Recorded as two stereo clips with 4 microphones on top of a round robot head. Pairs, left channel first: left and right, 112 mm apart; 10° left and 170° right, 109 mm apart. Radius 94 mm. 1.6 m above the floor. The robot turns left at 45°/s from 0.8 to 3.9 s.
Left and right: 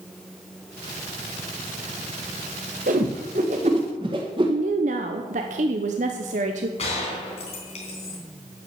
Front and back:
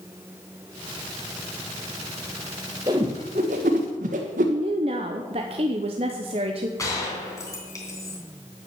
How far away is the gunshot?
About 3 m.